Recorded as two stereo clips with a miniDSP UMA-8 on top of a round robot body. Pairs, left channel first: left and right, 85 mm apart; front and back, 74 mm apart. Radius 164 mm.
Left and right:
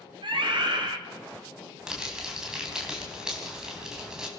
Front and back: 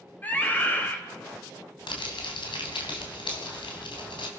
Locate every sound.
0.2 s a scream: 65° right, 4 m
1.9 s crumpling: 5° right, 3.5 m